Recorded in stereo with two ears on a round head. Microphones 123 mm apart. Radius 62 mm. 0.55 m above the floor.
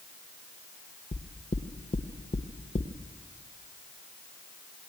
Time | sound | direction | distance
1.1 | knocking | 50° left (ahead or behind) | 1.3 m